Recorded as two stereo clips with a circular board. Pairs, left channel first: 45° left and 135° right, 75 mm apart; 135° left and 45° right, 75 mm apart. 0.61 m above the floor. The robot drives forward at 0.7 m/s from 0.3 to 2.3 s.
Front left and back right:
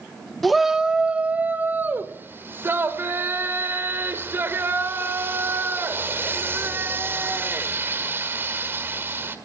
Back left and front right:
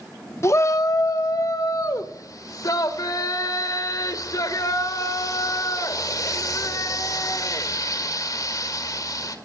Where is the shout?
135° left, 0.7 m; by 9.3 s 170° left, 1.8 m.